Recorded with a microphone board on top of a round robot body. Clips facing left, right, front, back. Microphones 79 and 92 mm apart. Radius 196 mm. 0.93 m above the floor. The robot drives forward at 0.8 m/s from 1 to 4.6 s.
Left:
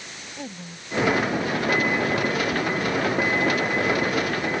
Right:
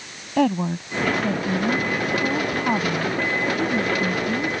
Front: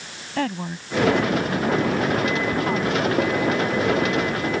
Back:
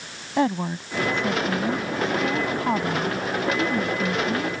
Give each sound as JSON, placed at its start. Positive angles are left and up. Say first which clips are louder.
{"t": 0.4, "sound": "a woman speaking", "louder": "right 19 dB, back 3 dB", "azimuth_deg": -110}